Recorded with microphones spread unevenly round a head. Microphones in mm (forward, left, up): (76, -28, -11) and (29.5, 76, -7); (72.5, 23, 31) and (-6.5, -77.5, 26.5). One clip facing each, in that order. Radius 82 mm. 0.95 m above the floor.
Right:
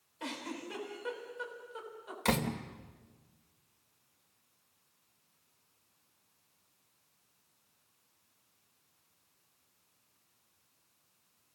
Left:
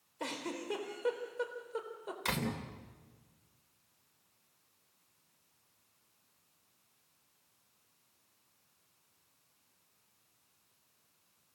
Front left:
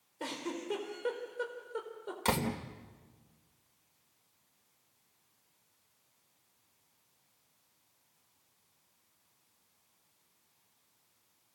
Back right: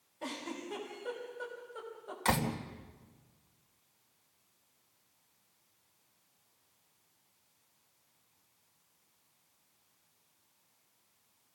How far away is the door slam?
About 2.5 m.